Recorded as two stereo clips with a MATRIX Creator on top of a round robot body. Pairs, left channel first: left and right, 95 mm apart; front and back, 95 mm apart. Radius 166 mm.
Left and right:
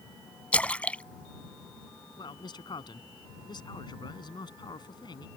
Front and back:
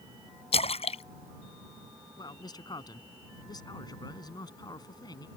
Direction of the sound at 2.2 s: 45° left.